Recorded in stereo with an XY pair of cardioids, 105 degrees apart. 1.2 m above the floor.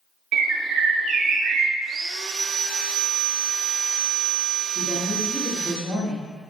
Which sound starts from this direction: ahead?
A woman speaking, at 4.8 s.